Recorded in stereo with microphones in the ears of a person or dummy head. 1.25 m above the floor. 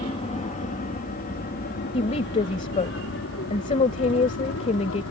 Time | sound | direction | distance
0.0 | an aircraft | 30° left (ahead or behind) | ?
1.9 | a woman speaking | 30° left (ahead or behind) | ?